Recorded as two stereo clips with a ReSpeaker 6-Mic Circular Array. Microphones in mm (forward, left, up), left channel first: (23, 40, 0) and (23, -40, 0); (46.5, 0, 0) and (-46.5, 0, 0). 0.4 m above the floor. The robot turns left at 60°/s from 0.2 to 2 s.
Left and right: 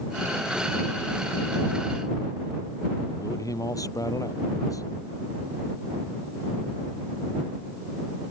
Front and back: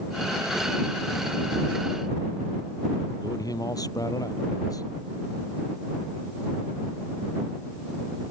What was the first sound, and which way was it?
A man speaking, 45° left.